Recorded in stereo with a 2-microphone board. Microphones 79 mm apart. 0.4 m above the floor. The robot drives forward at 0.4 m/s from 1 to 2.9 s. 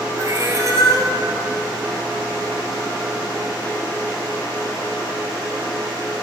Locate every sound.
0.2 s a cat meowing: 40° right (ahead or behind), 1.5 m